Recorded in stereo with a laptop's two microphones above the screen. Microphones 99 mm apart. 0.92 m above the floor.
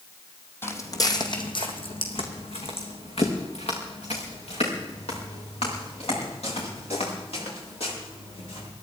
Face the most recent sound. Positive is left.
turn(degrees=75)  # may be behind; listen again after turning